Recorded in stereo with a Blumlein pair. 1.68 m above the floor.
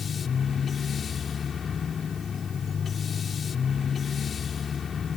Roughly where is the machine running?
Ahead.